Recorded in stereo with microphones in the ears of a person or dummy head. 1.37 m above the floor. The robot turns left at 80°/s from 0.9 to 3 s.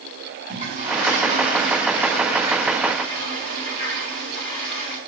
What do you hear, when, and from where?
0.5 s a toilet flushing: 45° right, 4.5 m; by 5.0 s 145° left, 4.5 m